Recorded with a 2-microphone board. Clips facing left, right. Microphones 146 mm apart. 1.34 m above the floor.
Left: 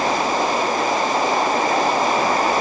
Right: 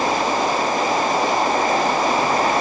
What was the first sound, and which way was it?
Only background noise.